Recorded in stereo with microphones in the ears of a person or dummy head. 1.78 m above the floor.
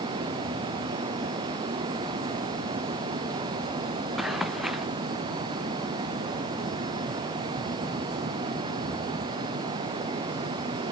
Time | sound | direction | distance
4.2 | running footsteps | 5° right (ahead or behind) | ?